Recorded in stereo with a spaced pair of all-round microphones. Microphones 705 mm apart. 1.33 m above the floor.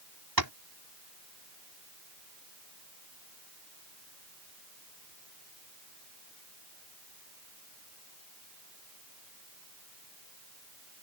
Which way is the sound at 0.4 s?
30° right (ahead or behind).